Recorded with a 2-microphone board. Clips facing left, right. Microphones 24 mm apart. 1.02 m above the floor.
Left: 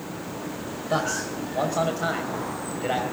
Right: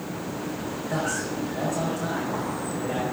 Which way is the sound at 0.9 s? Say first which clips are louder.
Left 3 dB; 45° left (ahead or behind).